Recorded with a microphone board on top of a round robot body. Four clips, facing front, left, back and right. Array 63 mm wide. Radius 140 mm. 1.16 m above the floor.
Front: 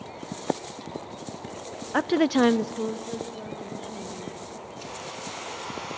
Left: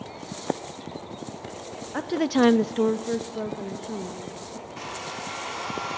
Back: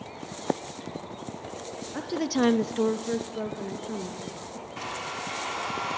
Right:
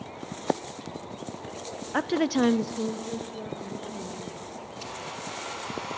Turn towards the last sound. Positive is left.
turn(degrees=155)